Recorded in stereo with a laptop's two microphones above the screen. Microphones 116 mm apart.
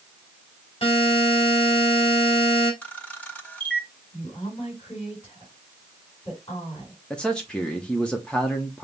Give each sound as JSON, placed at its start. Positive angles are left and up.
{"t": 0.8, "sound": "a buzzer", "side_deg": 55, "distance_m": 2.0}
{"t": 2.8, "sound": "a camera shutter", "side_deg": 10, "distance_m": 1.1}
{"t": 4.1, "sound": "a woman speaking", "side_deg": 50, "distance_m": 3.5}
{"t": 7.1, "sound": "a man speaking", "side_deg": 10, "distance_m": 0.7}